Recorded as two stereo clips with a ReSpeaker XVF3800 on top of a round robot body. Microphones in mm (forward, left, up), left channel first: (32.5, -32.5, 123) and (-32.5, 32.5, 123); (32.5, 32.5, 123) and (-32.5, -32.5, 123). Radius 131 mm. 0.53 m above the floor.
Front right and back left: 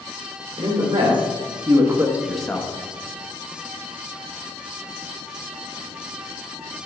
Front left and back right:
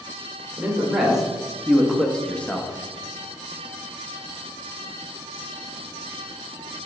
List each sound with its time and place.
0.6 s a man speaking: 145° left, 2.5 m; by 2.7 s 10° right, 1.1 m